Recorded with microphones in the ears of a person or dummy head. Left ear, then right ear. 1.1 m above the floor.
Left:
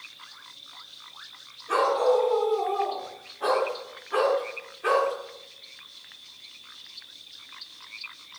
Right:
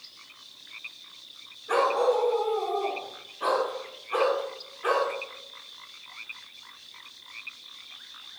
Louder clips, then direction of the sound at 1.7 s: Left 1 dB; 10° right (ahead or behind).